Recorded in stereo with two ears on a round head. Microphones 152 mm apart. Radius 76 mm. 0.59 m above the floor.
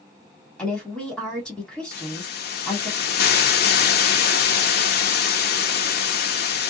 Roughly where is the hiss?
Left.